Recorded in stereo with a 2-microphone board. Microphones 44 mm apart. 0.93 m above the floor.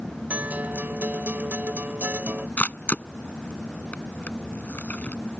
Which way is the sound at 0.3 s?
40° right (ahead or behind).